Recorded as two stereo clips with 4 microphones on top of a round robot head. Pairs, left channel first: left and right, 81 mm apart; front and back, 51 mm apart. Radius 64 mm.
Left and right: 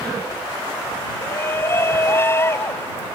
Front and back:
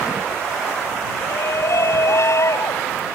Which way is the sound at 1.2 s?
30° left.